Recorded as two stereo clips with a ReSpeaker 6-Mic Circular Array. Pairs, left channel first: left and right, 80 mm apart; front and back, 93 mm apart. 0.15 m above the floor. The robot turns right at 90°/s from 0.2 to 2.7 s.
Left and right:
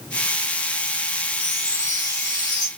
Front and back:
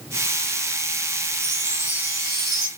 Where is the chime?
5° right, 2 m; by 2.7 s 110° left, 2 m.